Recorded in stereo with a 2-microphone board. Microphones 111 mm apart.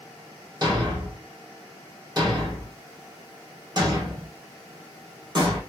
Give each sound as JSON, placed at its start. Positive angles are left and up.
{"t": 0.6, "sound": "a thud", "side_deg": -40, "distance_m": 1.1}